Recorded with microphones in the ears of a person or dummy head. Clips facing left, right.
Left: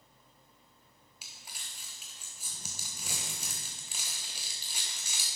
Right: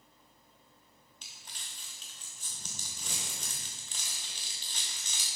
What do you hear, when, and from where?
1.2 s crumpling: 10° left (ahead or behind), 1.1 m